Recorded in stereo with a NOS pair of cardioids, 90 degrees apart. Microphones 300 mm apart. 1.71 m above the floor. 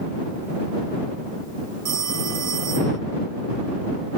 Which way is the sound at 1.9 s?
60° right.